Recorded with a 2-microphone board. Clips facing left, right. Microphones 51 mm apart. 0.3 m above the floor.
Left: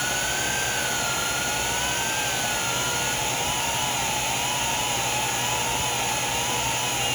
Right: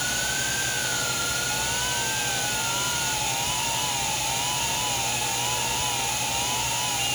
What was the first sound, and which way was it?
Only background noise.